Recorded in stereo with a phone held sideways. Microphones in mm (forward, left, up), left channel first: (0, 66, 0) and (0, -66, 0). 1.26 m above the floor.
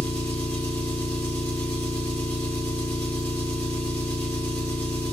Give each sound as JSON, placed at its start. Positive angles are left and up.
{"t": 0.0, "sound": "an engine running", "side_deg": 15, "distance_m": 3.0}